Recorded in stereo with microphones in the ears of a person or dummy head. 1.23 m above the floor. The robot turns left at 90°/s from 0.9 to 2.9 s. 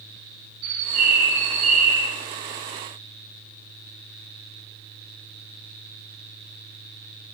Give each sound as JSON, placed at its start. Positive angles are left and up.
{"t": 0.6, "sound": "a bird", "azimuth_deg": -60, "distance_m": 2.5}